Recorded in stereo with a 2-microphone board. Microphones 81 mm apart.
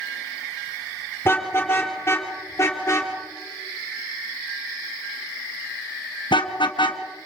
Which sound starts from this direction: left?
A car horn, at 1.2 s.